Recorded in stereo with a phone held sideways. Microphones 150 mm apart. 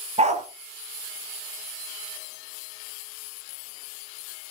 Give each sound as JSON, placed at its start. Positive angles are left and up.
{"t": 0.2, "sound": "a dog barking", "side_deg": -50, "distance_m": 2.5}